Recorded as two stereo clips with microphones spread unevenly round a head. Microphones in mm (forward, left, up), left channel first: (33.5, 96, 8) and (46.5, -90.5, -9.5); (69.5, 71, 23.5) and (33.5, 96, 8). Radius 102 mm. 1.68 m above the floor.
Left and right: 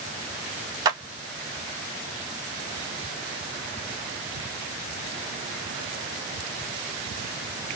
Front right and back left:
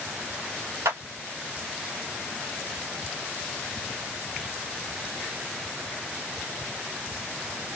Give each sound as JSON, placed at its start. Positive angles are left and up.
{"t": 0.8, "sound": "a clap", "azimuth_deg": -155, "distance_m": 0.9}